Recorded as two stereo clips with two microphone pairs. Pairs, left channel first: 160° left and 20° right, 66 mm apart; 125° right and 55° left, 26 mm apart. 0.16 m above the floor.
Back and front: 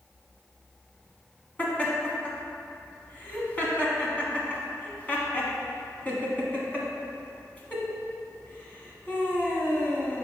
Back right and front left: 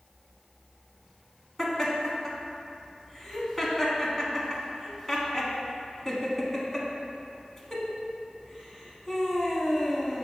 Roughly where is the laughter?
Behind.